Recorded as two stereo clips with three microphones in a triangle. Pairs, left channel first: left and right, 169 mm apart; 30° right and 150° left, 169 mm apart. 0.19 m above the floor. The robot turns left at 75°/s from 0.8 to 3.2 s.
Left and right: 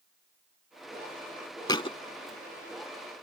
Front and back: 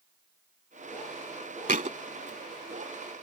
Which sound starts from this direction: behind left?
A thud, at 1.7 s.